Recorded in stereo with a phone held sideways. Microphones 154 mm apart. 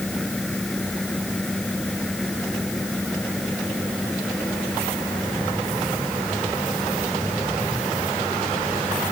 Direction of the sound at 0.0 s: Centre (ahead or behind).